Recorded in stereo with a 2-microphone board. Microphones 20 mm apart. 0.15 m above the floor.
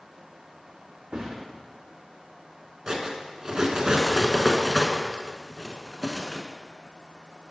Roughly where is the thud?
Right.